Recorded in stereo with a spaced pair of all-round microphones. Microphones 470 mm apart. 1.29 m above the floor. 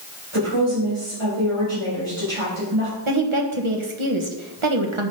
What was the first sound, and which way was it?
A woman speaking, 85° right.